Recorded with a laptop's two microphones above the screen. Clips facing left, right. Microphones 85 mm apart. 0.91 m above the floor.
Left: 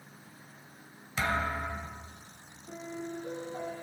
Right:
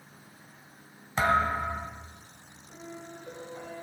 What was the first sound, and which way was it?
A thud, 45° right (ahead or behind).